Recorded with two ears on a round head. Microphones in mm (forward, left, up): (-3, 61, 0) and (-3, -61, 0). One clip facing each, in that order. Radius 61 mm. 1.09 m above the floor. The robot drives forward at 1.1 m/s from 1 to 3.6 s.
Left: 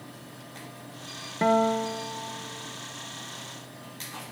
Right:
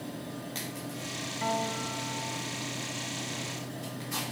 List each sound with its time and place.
1.4 s a guitar: 70° left (ahead or behind), 0.6 m; by 2.8 s 20° left (ahead or behind), 1.7 m